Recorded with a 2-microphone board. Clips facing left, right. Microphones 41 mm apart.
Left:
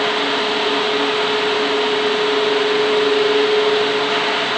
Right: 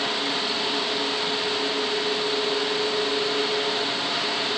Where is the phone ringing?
I don't hear a phone ringing.